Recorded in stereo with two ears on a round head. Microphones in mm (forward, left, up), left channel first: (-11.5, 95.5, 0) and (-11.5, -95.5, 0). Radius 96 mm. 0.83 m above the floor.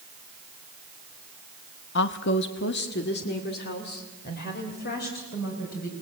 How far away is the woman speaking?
About 0.8 m.